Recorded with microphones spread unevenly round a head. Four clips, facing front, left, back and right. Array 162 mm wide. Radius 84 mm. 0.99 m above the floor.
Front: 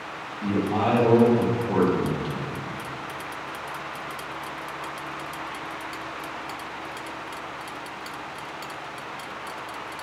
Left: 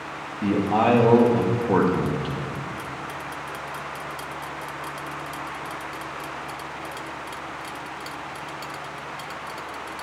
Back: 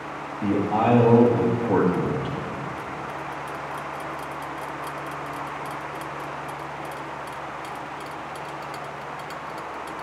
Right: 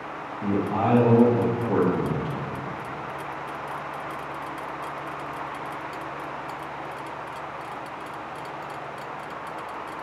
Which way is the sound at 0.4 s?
110° left.